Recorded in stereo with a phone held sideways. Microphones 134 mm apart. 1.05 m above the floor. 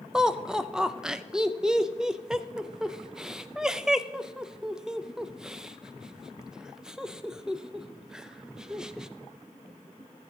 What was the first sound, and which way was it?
Laughter, 5° right (ahead or behind).